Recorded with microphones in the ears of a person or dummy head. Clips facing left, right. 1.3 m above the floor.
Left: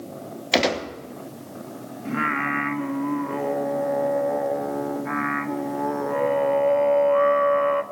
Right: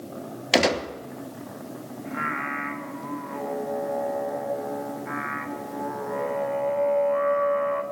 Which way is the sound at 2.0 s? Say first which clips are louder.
Left 7 dB; 55° left (ahead or behind).